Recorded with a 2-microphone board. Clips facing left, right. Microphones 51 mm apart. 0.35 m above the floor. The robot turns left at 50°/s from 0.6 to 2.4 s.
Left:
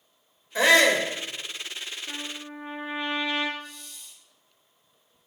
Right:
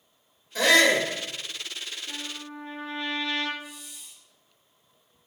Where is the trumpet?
30° left (ahead or behind), 1.2 m; by 3.5 s 15° left (ahead or behind), 1.2 m.